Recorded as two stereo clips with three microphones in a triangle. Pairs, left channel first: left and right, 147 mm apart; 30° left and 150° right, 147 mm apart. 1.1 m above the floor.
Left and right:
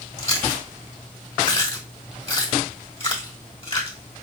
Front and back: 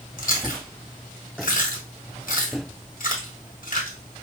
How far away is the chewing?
About 1.5 m.